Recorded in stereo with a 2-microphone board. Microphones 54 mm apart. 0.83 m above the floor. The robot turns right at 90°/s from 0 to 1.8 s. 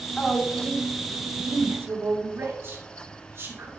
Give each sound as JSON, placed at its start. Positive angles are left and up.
{"t": 0.2, "sound": "a woman speaking", "side_deg": 20, "distance_m": 1.9}